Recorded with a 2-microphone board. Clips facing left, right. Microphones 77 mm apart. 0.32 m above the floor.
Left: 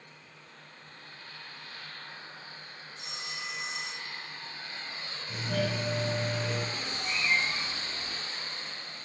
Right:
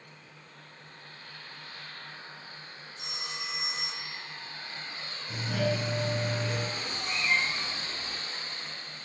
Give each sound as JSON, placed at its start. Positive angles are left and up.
{"t": 3.0, "sound": "a phone ringing", "side_deg": -65, "distance_m": 3.5}
{"t": 5.3, "sound": "a doorbell", "side_deg": -15, "distance_m": 4.0}
{"t": 6.7, "sound": "a cat meowing", "side_deg": -30, "distance_m": 4.0}